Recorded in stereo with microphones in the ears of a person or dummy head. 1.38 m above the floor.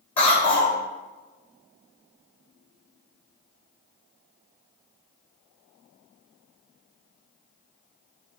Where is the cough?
25° left (ahead or behind), 0.8 m.